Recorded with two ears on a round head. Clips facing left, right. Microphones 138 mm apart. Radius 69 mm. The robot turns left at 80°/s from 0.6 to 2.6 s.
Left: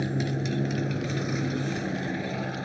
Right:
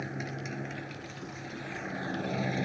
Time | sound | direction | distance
0.0 | a motorcycle | 140° left | ?